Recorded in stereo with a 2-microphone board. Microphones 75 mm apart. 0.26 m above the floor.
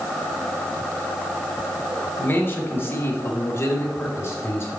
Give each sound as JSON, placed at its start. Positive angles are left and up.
{"t": 2.2, "sound": "a man speaking", "side_deg": 30, "distance_m": 1.2}